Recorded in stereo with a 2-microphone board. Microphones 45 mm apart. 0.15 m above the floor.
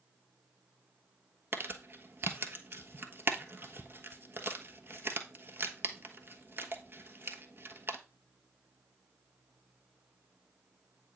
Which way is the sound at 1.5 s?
50° right (ahead or behind).